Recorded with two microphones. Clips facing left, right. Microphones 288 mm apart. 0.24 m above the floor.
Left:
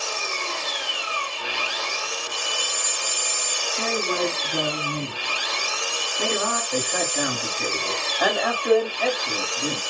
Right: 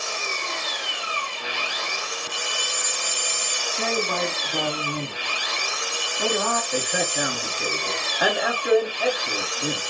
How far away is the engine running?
About 2.5 m.